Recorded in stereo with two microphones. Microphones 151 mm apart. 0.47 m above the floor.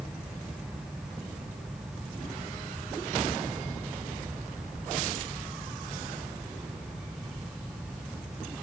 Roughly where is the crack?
I don't hear a crack.